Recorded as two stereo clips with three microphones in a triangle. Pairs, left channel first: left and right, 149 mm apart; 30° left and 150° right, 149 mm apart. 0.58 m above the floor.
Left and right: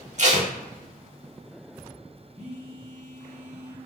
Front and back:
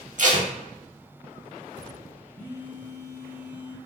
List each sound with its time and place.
0.2 s tape being pulled: 125° right, 0.6 m
2.4 s a phone buzzing: 130° right, 1.0 m